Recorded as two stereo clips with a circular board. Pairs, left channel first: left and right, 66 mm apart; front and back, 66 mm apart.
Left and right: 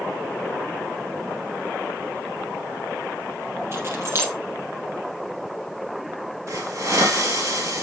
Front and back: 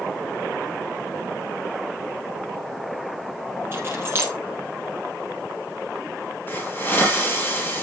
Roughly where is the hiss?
Ahead right.